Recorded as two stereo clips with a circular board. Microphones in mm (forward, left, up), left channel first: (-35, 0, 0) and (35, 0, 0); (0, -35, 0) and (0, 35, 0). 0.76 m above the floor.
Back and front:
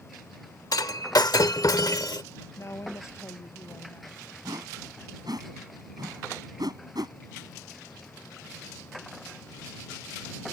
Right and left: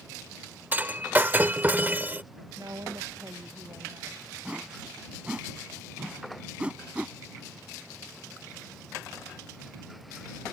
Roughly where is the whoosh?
Ahead.